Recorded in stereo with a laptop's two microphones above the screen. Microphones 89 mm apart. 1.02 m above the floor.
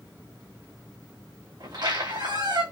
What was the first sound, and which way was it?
A squeak, 60° right (ahead or behind).